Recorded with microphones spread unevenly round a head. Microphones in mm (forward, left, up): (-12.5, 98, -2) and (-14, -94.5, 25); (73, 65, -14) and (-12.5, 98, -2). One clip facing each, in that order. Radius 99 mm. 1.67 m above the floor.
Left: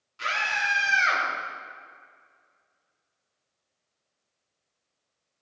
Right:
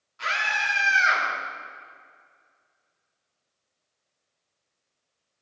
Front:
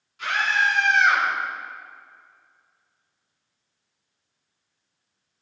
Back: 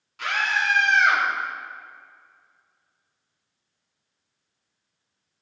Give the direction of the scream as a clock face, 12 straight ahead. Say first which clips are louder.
Right 1 dB, front 2 dB; 7 o'clock.